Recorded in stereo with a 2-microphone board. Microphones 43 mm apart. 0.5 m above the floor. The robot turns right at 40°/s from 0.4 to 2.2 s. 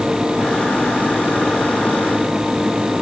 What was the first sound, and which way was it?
Only background noise.